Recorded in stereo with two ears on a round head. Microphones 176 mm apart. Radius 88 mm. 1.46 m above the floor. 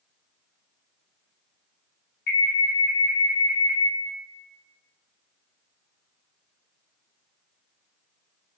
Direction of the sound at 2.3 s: 60° left (ahead or behind).